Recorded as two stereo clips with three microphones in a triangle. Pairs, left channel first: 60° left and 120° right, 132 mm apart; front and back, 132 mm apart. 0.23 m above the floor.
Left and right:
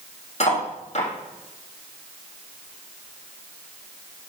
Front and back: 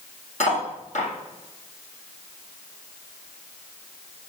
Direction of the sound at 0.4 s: 25° left.